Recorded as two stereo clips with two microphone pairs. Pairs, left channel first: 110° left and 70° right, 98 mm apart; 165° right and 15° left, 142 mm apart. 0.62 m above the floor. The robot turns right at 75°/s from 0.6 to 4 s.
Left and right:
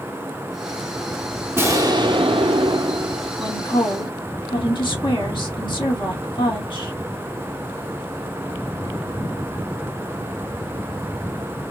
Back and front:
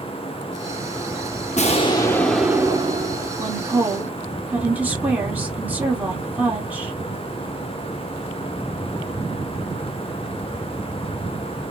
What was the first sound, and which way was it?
An explosion, 135° right.